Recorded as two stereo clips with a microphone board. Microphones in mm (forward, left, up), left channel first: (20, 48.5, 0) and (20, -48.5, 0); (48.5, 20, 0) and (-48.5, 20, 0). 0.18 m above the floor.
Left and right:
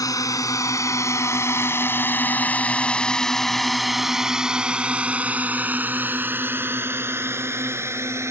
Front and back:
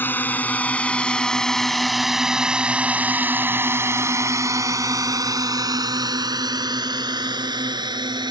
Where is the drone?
60° left; by 8.3 s 150° right.